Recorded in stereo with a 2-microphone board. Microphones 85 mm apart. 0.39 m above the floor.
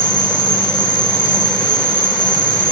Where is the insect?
65° left (ahead or behind), 1.4 m.